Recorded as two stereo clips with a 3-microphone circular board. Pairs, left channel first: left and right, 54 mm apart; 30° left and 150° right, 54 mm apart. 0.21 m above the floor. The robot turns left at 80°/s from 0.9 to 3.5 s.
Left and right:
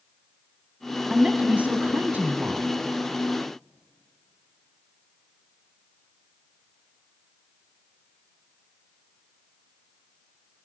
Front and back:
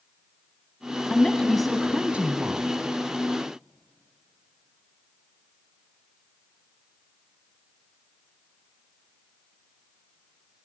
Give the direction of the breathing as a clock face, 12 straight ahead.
No breathing in this recording.